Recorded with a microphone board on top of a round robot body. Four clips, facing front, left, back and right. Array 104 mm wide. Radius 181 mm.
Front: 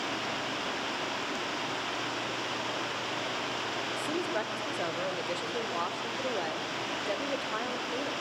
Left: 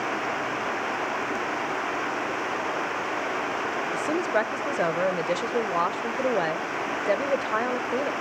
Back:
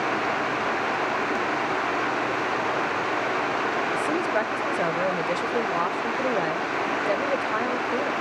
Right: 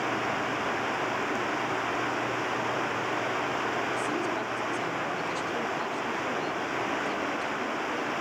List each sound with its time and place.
0.0 s running water: 170° left, 1.5 m
3.9 s a woman speaking: 120° left, 1.9 m